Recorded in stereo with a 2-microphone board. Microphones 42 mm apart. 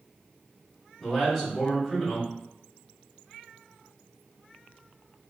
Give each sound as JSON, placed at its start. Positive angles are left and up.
{"t": 1.0, "sound": "a man speaking", "side_deg": 0, "distance_m": 1.6}